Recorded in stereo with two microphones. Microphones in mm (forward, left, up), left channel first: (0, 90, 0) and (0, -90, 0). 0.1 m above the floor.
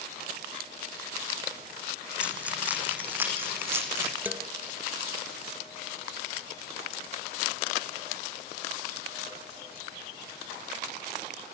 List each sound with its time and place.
2.2 s keys jangling: 5° right (ahead or behind), 4.5 m; by 4.1 s 15° right (ahead or behind), 5.5 m
4.2 s a man speaking: 10° right (ahead or behind), 1.6 m